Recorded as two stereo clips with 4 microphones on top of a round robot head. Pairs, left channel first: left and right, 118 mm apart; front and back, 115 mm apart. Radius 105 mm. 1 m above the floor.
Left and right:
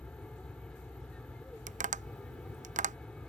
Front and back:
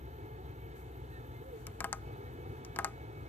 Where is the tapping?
75° right.